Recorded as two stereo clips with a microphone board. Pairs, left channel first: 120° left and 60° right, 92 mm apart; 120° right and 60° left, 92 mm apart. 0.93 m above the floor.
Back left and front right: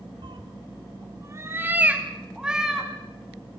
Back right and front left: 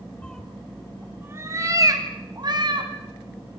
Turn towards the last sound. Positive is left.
turn(degrees=25)